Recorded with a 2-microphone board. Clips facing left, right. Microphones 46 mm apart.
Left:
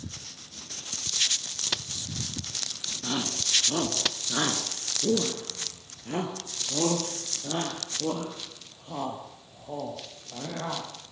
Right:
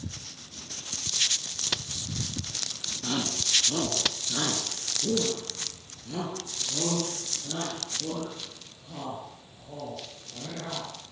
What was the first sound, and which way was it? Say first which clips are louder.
A shout: even; centre (ahead or behind).